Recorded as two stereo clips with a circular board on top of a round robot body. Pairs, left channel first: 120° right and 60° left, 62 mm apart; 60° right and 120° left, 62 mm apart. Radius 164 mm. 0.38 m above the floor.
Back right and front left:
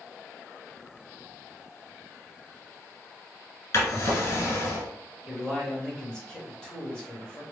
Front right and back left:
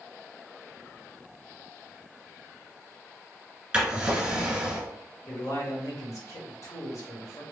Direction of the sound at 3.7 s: 160° right.